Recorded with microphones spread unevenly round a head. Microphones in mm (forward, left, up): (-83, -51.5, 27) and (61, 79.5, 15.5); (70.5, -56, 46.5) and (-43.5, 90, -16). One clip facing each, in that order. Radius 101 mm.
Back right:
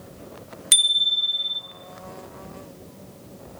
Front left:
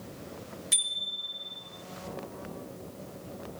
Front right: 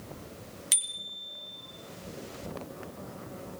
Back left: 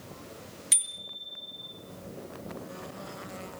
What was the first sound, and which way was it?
A bicycle bell, 135° right.